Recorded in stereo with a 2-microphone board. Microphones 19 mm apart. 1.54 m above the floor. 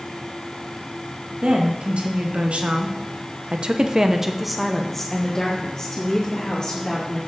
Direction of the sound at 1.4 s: 70° right (ahead or behind).